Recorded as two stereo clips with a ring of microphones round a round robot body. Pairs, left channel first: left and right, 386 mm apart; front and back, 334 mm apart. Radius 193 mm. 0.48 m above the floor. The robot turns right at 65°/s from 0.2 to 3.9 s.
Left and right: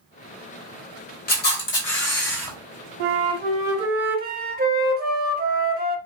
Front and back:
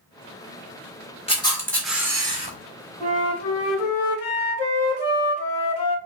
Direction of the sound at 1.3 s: 55° left.